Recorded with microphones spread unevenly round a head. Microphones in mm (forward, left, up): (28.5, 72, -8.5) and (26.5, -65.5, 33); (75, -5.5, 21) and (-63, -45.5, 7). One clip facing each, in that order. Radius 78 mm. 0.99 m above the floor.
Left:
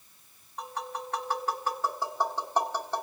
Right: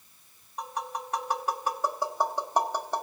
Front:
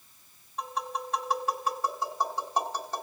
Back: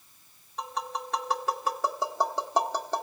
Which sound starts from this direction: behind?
Tapping, at 0.6 s.